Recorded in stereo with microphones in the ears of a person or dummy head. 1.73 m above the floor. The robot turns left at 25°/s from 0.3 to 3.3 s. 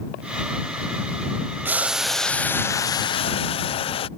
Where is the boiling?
165° right; by 4.1 s 150° left.